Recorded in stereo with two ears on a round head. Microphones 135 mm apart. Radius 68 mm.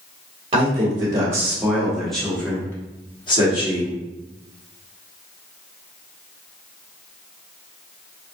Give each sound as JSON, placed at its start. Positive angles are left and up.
{"t": 0.5, "sound": "a man speaking", "side_deg": -35, "distance_m": 1.4}